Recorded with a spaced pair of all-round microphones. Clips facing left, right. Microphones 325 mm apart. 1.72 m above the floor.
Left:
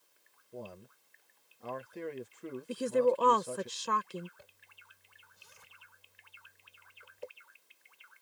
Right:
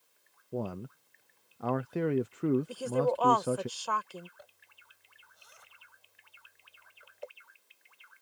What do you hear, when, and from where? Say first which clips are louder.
0.5 s a man speaking: right 10 dB; 75° right (ahead or behind)
2.7 s a woman speaking: left 2 dB; 30° left (ahead or behind)
4.4 s a zipper: right 4 dB; 35° left (ahead or behind)